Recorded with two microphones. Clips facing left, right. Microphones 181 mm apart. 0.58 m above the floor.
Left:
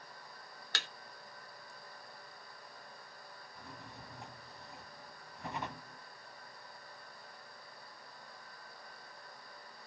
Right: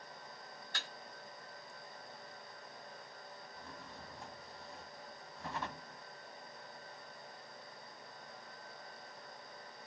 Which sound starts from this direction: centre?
A drawer, at 3.5 s.